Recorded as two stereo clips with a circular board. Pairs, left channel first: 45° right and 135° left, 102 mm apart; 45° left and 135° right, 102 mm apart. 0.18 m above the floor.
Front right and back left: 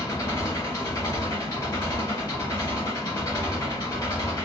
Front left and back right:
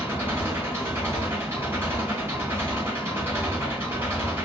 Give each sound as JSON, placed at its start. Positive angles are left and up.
{"t": 0.0, "sound": "an engine running", "azimuth_deg": -80, "distance_m": 1.7}